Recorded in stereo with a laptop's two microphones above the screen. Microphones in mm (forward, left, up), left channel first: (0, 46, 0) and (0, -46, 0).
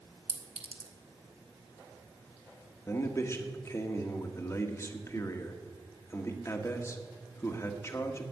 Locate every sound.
0.3 s a clink: 75° right (ahead or behind), 1.7 m
2.9 s a man speaking: 35° left (ahead or behind), 1.6 m